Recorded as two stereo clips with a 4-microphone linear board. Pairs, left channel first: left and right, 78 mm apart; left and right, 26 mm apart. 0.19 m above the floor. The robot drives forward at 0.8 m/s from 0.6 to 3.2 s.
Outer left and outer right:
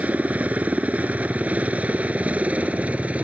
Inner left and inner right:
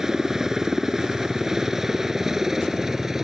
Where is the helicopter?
20° right (ahead or behind).